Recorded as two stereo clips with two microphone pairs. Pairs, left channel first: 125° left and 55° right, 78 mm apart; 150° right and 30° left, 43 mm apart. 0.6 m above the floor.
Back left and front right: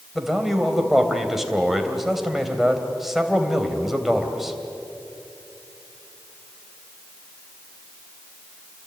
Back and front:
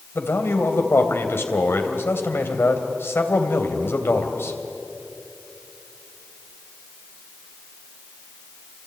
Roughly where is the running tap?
I don't hear a running tap.